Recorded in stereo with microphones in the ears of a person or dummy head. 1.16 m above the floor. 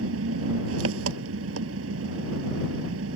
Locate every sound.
0.0 s an engine running: 80° right